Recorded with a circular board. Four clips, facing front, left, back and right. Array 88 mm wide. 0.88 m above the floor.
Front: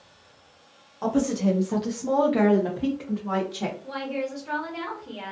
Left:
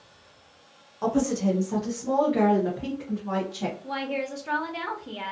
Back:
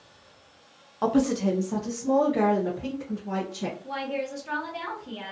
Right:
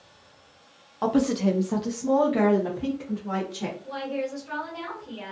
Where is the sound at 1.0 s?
130° right, 0.5 m; by 3.7 s straight ahead, 1.3 m.